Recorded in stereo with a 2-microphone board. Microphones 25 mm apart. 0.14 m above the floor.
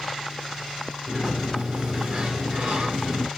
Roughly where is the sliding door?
Right.